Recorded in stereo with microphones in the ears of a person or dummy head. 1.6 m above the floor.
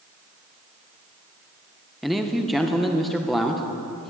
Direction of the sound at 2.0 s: 5° right (ahead or behind).